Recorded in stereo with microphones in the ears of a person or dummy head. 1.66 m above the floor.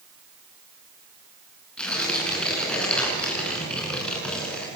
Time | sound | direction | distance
1.8 | tearing paper | 5° left (ahead or behind) | 6.5 m